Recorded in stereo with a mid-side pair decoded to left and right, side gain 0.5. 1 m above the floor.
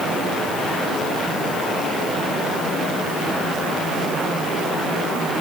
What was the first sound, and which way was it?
Only background noise.